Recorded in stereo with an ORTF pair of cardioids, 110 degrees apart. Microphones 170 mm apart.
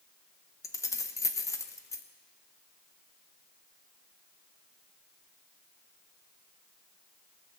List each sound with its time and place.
0.6 s keys jangling: 15° left, 0.8 m